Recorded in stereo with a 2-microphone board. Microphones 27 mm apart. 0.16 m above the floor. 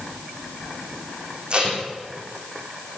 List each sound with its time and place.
1.5 s tape being pulled: 35° right (ahead or behind), 9.5 m